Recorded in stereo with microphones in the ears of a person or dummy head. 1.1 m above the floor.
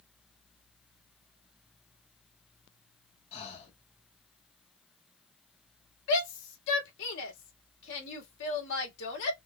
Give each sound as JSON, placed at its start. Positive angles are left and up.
{"t": 3.3, "sound": "breathing", "side_deg": 30, "distance_m": 1.6}
{"t": 6.1, "sound": "a shout", "side_deg": 65, "distance_m": 3.0}